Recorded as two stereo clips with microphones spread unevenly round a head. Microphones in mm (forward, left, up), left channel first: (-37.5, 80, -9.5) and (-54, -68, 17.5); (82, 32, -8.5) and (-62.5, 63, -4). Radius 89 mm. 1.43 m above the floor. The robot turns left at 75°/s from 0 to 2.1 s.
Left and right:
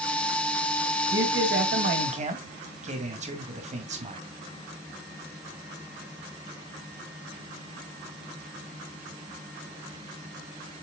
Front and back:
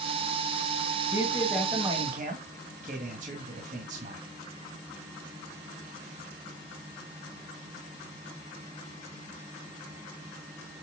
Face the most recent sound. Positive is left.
turn(degrees=-140)